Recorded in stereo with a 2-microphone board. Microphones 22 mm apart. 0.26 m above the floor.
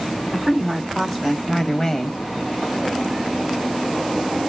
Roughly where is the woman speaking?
Centre.